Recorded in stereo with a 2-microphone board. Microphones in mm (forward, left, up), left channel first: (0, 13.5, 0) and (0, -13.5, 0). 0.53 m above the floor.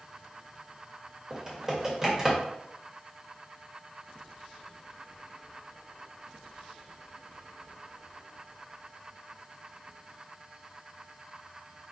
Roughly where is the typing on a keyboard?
Right.